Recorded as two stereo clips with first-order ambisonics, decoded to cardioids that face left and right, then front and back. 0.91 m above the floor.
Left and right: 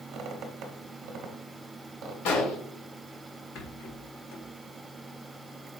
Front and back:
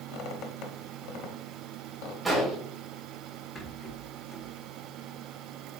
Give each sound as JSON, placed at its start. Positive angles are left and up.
{"t": 0.1, "sound": "a squeak", "azimuth_deg": -40, "distance_m": 1.0}
{"t": 2.2, "sound": "an explosion", "azimuth_deg": 95, "distance_m": 3.0}
{"t": 3.5, "sound": "a rattle", "azimuth_deg": 65, "distance_m": 1.9}